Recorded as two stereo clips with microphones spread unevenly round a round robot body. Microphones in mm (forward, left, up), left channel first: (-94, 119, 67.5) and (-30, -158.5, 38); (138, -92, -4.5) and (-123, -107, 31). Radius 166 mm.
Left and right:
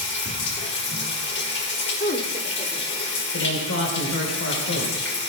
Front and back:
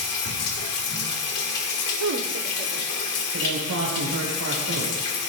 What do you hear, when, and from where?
0.0 s running water: 45° left, 1.5 m
2.0 s a woman speaking: 160° left, 2.5 m
3.3 s a man speaking: 140° left, 4 m